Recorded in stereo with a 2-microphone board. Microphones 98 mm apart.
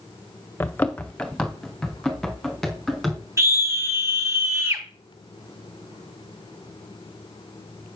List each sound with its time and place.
0.6 s running footsteps: 20° left (ahead or behind), 1.2 m; by 3.2 s centre (ahead or behind), 5 m
3.4 s a scream: 25° right (ahead or behind), 2.5 m